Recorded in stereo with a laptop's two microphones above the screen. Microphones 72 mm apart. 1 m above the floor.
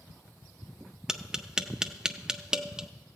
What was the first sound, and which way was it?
Tapping, 10° right (ahead or behind).